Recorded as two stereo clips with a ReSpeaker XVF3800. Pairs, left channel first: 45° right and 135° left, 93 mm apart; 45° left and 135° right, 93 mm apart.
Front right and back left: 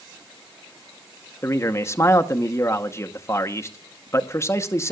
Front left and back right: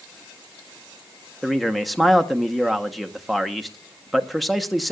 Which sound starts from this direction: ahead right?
A man speaking, at 1.4 s.